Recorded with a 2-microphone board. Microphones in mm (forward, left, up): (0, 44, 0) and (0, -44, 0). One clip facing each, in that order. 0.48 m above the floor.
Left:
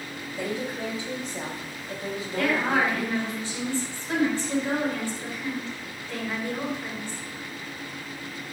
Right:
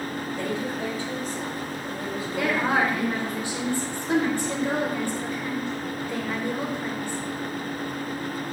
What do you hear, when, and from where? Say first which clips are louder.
0.4 s a woman speaking: even; 15° left (ahead or behind), 3 m; by 3.4 s 35° left (ahead or behind), 4 m
2.4 s a woman speaking: right 1 dB; 15° right (ahead or behind), 2.5 m